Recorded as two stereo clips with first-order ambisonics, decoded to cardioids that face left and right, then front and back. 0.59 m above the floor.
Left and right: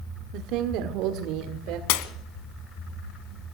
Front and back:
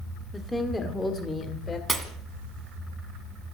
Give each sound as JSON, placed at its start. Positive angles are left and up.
{"t": 0.3, "sound": "a woman speaking", "azimuth_deg": -85, "distance_m": 1.5}
{"t": 1.9, "sound": "breaking glass", "azimuth_deg": 100, "distance_m": 1.6}